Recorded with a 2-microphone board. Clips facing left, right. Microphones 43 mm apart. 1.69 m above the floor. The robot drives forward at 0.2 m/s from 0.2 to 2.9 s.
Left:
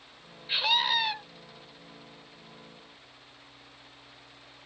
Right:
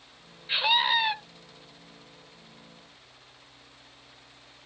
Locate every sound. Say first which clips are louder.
0.5 s a scream: right 3 dB; 15° right (ahead or behind), 0.8 m